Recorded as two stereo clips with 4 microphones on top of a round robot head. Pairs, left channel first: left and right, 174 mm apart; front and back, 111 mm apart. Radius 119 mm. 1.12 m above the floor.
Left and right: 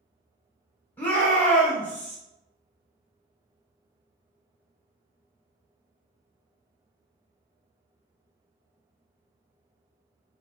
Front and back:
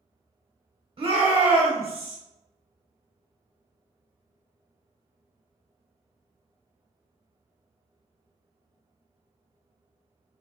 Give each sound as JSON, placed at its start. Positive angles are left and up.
{"t": 1.0, "sound": "a shout", "azimuth_deg": 165, "distance_m": 1.1}